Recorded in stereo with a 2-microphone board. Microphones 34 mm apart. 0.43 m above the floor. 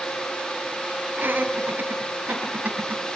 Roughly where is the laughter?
Right.